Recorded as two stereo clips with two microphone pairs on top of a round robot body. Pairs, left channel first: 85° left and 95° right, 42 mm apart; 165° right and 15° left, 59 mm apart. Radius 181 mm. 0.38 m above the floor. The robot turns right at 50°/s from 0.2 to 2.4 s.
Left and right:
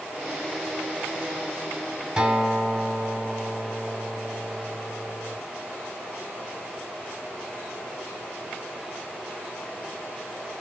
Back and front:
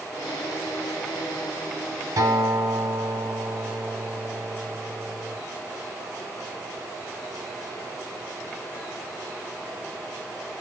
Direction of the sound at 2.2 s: 15° right.